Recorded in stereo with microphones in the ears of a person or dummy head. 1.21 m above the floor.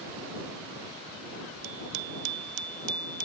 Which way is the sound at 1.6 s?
80° right.